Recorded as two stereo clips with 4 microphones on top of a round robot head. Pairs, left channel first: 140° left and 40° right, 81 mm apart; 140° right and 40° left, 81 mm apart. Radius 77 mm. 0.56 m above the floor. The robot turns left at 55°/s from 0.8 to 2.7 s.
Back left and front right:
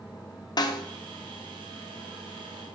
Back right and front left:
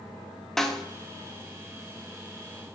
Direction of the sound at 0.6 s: 140° left.